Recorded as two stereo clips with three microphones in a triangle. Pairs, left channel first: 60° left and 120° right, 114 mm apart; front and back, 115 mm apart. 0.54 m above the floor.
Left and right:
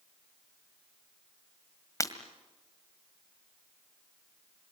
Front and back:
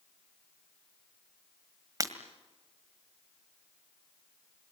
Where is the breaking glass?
120° left, 1.8 m.